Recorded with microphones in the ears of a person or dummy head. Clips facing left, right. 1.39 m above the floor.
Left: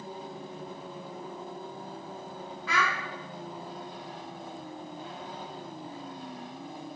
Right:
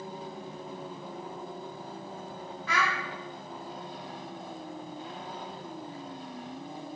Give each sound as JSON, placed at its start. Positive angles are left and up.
{"t": 2.7, "sound": "a child speaking", "side_deg": 65, "distance_m": 0.5}